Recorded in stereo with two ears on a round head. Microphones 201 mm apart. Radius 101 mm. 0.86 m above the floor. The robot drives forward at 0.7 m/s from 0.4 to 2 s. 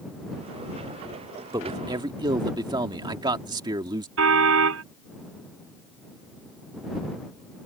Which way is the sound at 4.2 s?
65° right (ahead or behind).